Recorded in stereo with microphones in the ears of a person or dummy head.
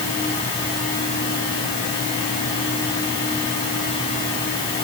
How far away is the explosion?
I don't hear an explosion.